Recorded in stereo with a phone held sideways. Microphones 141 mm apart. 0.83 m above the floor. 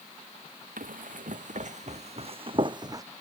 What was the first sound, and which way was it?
Running footsteps, 70° right (ahead or behind).